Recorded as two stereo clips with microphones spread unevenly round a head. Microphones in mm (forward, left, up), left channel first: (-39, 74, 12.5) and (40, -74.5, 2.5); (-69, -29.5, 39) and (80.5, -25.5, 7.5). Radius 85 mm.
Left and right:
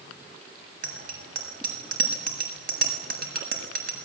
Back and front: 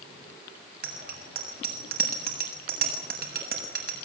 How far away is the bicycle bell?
About 7.5 m.